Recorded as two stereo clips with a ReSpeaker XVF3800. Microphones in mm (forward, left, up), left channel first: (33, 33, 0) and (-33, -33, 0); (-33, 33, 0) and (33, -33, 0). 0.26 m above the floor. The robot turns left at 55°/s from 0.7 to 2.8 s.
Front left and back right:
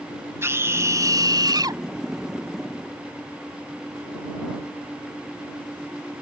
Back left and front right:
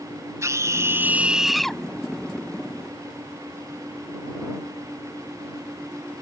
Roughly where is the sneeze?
I don't hear a sneeze.